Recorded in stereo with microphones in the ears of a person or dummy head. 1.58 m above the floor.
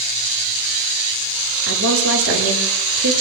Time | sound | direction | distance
1.7 | a woman speaking | 75° right (ahead or behind) | 7.5 m